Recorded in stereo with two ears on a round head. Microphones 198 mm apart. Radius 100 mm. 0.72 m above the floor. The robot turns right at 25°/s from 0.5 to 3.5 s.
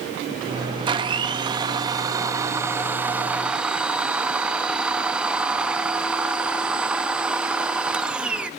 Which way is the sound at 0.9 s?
20° right (ahead or behind).